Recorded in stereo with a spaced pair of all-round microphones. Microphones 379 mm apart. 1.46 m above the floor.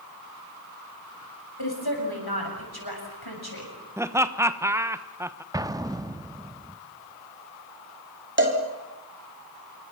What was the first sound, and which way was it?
A woman speaking, 75° left (ahead or behind).